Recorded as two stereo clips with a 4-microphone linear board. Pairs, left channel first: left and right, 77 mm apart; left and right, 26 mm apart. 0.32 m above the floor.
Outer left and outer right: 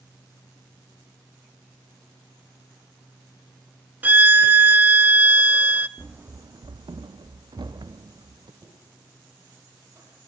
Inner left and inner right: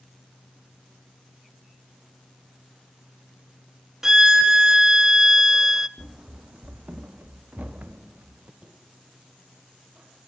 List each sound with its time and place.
4.0 s a violin: 25° right (ahead or behind), 0.6 m
6.0 s running footsteps: 15° right (ahead or behind), 0.7 m; by 8.5 s 65° right (ahead or behind), 2.5 m
8.6 s knocking: 40° right (ahead or behind), 7 m